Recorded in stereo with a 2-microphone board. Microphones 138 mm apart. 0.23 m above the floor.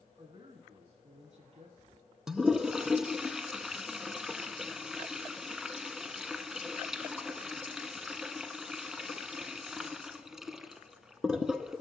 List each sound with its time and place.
0.2 s a man speaking: 40° right (ahead or behind), 2 m; by 2.0 s 50° right (ahead or behind), 4.5 m
2.3 s a toilet flushing: 5° right (ahead or behind), 0.8 m